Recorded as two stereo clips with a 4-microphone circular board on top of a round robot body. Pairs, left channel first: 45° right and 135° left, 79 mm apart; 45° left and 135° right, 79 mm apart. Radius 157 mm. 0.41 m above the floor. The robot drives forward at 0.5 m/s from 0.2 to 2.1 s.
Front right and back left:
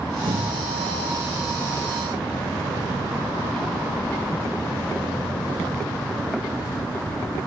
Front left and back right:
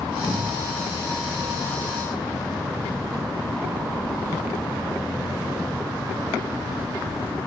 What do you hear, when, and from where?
0.3 s a cupboard door: 135° left, 5 m; by 0.7 s 140° left, 5.5 m